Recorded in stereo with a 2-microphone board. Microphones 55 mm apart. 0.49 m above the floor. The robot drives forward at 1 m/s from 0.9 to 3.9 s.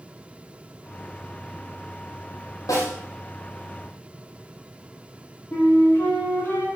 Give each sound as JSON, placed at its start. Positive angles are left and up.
{"t": 2.7, "sound": "a snare drum", "side_deg": 80, "distance_m": 5.0}
{"t": 5.5, "sound": "a flute", "side_deg": 40, "distance_m": 5.0}